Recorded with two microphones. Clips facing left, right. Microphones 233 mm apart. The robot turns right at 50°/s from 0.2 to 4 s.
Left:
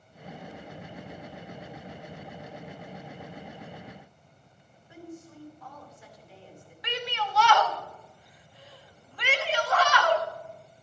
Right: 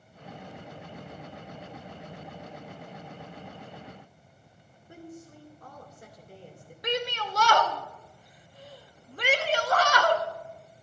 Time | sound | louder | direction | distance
4.9 | a woman speaking | left 1 dB | 50° right (ahead or behind) | 2.5 m
6.8 | a shout | right 4 dB | 45° right (ahead or behind) | 0.9 m